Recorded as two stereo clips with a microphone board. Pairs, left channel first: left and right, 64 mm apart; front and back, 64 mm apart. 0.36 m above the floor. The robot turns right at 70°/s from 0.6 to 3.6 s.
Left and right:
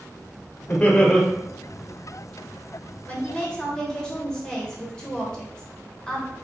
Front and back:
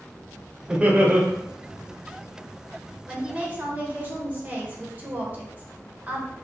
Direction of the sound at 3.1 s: 120° left.